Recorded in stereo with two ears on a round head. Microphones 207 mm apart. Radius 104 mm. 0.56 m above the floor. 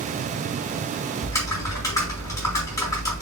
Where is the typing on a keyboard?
15° left (ahead or behind), 4 m.